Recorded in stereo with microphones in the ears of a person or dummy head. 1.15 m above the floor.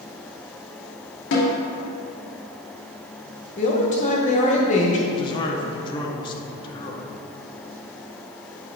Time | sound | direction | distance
1.3 | a snare drum | 75° left (ahead or behind) | 1.8 m
3.6 | a man speaking | 35° left (ahead or behind) | 1.0 m
5.1 | a man speaking | 20° left (ahead or behind) | 0.9 m